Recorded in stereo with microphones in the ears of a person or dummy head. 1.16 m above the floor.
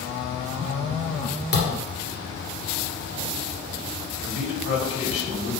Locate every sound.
1.5 s a thud: 60° left (ahead or behind), 2 m
4.2 s a man speaking: 75° left (ahead or behind), 2 m